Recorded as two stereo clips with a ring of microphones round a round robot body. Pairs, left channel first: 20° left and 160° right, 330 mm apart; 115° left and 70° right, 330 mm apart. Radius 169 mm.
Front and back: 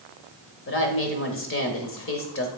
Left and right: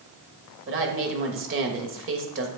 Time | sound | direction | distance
0.7 | a woman speaking | 20° right | 1.3 m